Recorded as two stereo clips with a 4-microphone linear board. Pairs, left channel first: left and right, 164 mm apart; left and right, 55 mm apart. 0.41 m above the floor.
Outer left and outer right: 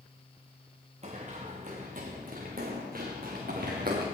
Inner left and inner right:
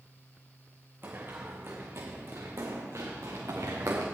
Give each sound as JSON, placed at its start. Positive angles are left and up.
{"t": 1.0, "sound": "running footsteps", "side_deg": -45, "distance_m": 2.0}